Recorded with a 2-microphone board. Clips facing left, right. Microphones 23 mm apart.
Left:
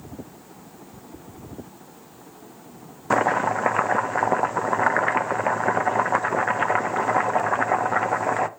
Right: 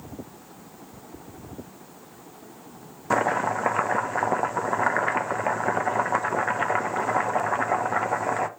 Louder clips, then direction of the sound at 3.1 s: Left 2 dB; 10° left (ahead or behind).